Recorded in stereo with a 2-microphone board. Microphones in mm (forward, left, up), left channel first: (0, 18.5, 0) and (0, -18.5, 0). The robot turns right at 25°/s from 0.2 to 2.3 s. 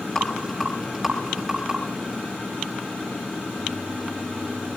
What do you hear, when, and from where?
0.1 s a rattle: 20° left (ahead or behind), 5 m; by 1.8 s 20° right (ahead or behind), 5 m